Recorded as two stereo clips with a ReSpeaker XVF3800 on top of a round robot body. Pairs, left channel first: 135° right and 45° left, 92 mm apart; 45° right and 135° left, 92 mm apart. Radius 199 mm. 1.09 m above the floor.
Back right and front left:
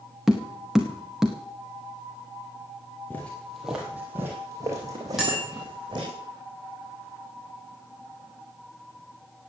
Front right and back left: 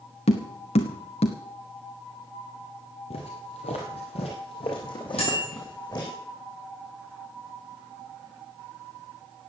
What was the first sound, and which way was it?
Tapping, 40° right.